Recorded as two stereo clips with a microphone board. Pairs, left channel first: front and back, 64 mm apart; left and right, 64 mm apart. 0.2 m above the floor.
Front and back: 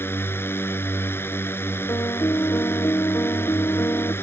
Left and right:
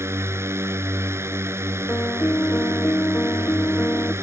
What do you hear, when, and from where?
0.0 s a drone: 50° right
1.9 s a piano: 35° left